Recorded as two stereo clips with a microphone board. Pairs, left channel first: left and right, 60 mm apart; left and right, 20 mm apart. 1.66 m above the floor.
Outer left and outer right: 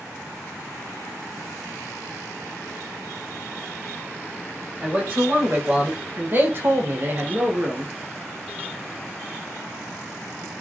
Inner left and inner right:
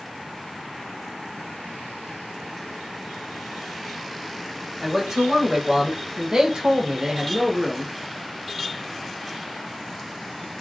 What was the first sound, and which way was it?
A man speaking, 25° right (ahead or behind).